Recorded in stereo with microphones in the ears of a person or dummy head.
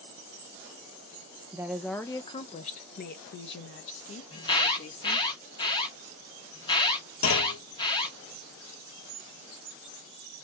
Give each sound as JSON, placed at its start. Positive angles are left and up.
{"t": 1.5, "sound": "a woman speaking", "side_deg": -15, "distance_m": 0.6}
{"t": 4.3, "sound": "an alarm", "side_deg": 25, "distance_m": 1.0}
{"t": 7.2, "sound": "a clunk", "side_deg": 75, "distance_m": 1.8}